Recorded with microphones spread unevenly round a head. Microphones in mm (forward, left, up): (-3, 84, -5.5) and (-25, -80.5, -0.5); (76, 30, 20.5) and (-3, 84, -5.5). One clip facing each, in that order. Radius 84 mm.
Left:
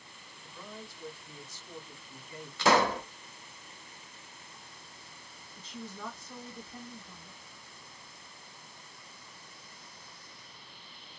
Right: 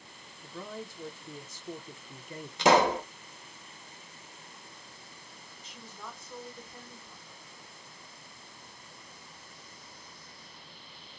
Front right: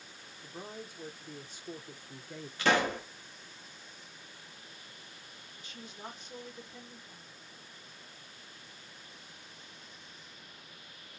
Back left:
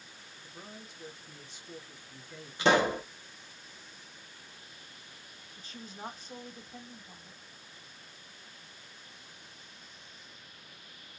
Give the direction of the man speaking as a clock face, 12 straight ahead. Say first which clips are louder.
Right 6 dB, front right 5 dB; 3 o'clock.